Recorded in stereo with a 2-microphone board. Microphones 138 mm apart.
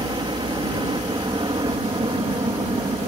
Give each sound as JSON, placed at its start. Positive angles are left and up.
{"t": 0.0, "sound": "a helicopter", "side_deg": -35}